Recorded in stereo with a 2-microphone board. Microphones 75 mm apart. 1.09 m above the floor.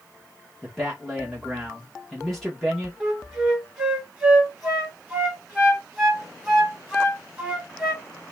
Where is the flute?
5° right (ahead or behind), 2.0 m.